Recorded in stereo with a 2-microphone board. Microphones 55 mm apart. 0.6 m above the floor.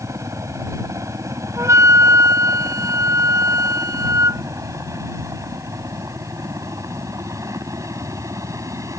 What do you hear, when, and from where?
0.0 s a helicopter: 65° right (ahead or behind); by 9.0 s 75° right (ahead or behind)
1.6 s a flute: 70° right (ahead or behind)